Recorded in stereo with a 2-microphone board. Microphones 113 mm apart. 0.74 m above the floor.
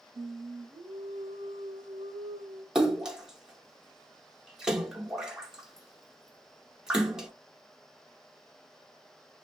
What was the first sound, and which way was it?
Singing, 65° right (ahead or behind).